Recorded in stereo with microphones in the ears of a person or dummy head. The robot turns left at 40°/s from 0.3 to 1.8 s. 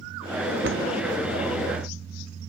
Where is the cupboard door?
60° right (ahead or behind), 1.7 m; by 0.8 s 55° right (ahead or behind), 1.7 m.